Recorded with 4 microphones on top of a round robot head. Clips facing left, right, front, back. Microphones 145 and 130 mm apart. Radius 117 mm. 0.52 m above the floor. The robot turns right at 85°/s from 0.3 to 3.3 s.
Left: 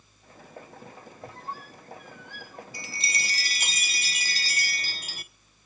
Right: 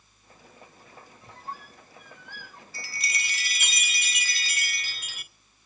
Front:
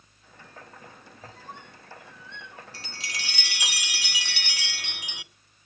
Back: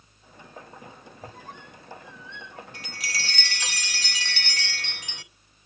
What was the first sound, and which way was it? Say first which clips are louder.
A squeak: left 2 dB, back 1 dB; 165° left.